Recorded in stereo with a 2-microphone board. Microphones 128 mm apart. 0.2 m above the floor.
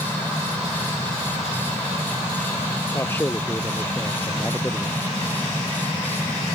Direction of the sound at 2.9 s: 20° left (ahead or behind).